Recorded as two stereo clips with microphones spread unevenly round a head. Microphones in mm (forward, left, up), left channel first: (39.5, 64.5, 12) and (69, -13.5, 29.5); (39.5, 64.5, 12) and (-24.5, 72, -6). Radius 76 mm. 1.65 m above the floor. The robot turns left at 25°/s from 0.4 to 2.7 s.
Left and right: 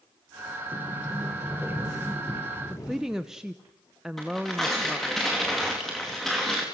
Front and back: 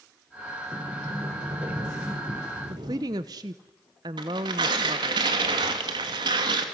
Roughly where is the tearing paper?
Behind.